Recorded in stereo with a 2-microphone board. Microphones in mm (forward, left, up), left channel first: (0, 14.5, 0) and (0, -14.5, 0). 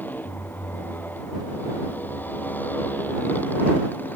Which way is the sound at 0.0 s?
85° left.